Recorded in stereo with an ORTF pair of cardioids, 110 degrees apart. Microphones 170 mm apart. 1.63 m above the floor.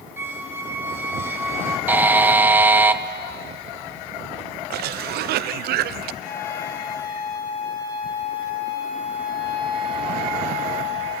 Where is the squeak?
15° right, 1.6 m.